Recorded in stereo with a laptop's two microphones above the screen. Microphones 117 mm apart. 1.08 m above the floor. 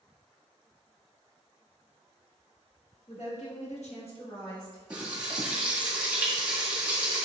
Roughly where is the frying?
Centre.